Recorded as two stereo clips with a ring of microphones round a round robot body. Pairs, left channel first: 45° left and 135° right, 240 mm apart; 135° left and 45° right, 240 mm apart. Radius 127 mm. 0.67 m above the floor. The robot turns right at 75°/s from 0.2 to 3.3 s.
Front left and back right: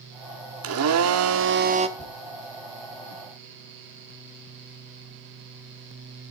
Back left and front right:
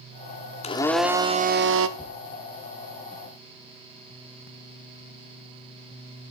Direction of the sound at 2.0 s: 65° left.